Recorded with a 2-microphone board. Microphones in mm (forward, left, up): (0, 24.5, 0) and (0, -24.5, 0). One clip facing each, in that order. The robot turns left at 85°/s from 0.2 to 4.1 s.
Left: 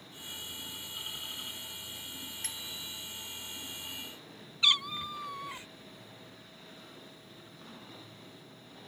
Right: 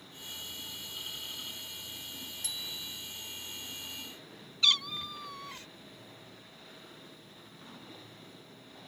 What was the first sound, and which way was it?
A bicycle bell, 45° left.